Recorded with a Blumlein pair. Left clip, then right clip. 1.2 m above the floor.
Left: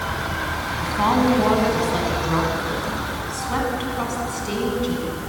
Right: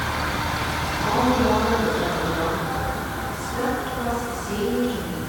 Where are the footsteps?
I don't hear footsteps.